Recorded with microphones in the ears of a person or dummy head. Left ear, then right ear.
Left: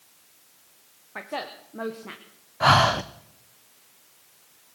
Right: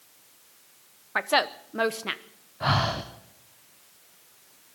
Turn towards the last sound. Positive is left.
turn(degrees=30)  # may be behind; listen again after turning